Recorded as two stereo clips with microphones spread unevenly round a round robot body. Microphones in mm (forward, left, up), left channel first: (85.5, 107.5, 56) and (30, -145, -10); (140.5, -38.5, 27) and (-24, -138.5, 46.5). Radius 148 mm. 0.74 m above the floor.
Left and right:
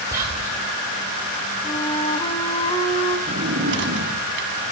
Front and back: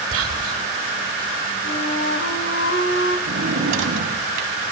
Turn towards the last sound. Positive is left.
turn(degrees=-160)